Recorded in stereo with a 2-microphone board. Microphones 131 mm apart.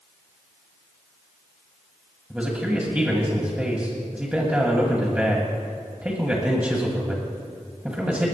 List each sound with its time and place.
2.3 s a man speaking: 10° right (ahead or behind), 1.7 m